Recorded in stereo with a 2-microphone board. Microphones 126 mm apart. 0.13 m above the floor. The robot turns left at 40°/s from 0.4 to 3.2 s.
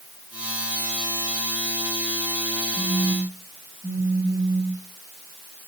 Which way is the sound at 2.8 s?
10° right (ahead or behind).